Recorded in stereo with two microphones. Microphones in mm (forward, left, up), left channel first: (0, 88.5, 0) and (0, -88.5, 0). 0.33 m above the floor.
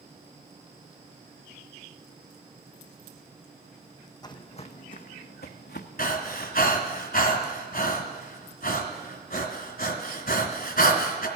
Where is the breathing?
60° left (ahead or behind), 1.7 m.